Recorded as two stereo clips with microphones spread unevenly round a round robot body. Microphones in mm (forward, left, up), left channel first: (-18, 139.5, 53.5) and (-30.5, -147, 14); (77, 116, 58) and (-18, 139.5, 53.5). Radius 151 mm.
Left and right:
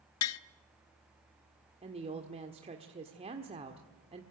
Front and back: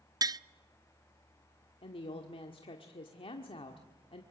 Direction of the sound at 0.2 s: 120° left.